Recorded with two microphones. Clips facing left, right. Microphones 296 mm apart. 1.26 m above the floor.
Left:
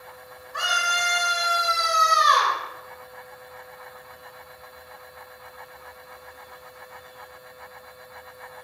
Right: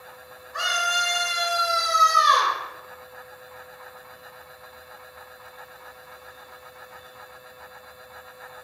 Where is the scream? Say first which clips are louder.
Even; 60° left (ahead or behind), 0.9 m; by 2.6 s 55° right (ahead or behind), 1.3 m.